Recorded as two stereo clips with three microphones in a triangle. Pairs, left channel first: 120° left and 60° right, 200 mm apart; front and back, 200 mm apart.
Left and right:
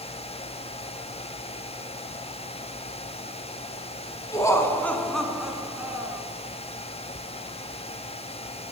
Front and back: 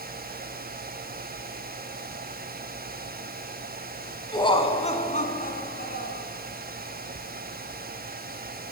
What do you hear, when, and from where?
4.3 s laughter: 55° left, 1.6 m; by 6.3 s 15° left, 2 m